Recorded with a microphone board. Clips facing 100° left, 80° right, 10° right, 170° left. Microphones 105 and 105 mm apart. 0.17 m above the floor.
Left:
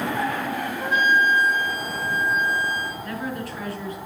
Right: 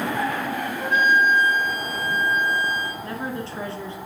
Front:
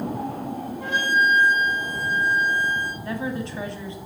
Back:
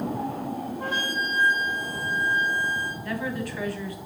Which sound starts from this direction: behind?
A flute, at 0.8 s.